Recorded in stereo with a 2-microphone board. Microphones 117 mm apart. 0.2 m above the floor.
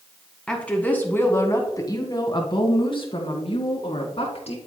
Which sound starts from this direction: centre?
A woman speaking, at 0.5 s.